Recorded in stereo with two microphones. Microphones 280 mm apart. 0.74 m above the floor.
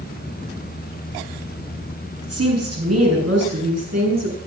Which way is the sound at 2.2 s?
60° right (ahead or behind).